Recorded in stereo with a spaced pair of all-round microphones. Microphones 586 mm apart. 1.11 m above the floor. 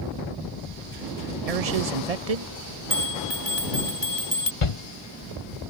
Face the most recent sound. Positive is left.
turn(degrees=60)  # may be behind; listen again after turning